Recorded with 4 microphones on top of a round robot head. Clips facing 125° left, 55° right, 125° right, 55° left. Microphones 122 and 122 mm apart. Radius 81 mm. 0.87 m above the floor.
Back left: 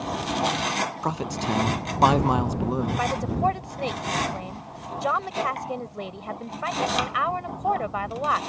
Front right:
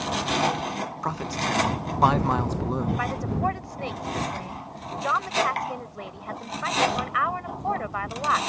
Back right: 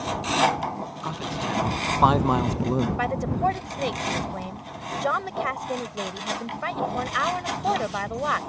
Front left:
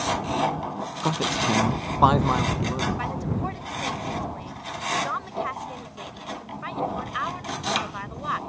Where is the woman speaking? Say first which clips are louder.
Back left 3 dB, back right 4 dB; 165° right.